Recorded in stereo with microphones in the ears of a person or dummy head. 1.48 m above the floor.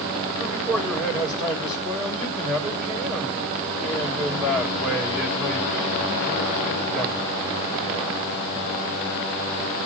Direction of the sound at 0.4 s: 5° left (ahead or behind).